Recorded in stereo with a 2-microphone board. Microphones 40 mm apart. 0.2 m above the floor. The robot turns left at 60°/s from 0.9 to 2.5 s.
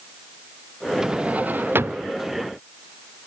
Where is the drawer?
15° right; by 2.1 s 80° right.